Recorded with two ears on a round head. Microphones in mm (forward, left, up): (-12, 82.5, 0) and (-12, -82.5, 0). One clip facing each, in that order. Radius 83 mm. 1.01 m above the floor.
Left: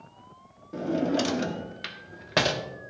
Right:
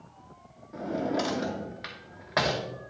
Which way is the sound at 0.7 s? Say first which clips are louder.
Left 4 dB; 35° left (ahead or behind).